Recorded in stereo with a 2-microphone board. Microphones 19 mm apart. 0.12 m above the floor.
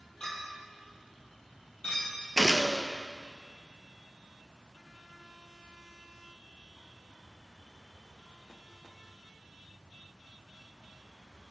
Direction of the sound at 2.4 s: 10° left (ahead or behind).